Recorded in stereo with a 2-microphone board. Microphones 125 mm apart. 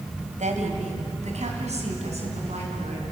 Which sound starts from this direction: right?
A woman speaking, at 0.4 s.